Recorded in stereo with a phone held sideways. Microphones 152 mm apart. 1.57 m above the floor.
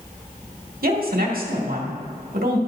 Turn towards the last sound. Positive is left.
turn(degrees=-75)  # may be behind; listen again after turning